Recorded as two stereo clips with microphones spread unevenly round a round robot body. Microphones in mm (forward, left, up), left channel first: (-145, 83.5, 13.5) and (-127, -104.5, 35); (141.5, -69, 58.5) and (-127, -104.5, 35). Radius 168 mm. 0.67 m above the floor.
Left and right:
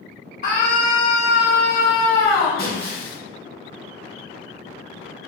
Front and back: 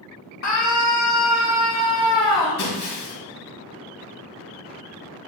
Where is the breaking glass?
35° left, 3 m.